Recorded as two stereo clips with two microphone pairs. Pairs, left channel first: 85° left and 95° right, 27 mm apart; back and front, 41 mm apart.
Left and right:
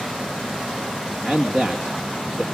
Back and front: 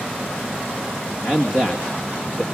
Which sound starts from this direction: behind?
A man speaking, at 1.2 s.